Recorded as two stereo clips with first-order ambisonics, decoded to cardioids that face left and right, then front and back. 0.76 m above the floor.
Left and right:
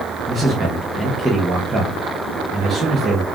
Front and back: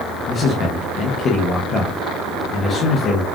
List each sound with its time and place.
0.3 s a man speaking: 25° right, 0.7 m